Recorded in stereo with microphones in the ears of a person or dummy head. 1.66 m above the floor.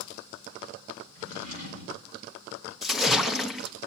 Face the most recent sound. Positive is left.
turn(degrees=0)  # may be behind; listen again after turning